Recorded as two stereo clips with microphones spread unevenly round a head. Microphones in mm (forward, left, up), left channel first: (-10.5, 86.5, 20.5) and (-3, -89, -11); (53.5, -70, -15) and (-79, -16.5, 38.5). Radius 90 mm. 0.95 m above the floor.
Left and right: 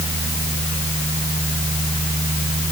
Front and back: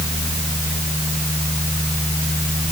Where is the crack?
I don't hear a crack.